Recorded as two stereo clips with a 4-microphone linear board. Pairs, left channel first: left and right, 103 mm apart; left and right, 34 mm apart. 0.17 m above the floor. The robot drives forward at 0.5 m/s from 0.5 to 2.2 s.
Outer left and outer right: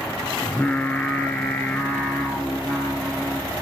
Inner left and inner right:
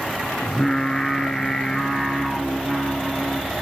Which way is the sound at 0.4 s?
15° left (ahead or behind).